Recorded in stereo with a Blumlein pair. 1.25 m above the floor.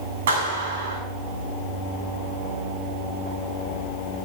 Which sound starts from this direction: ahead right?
A clap, at 0.3 s.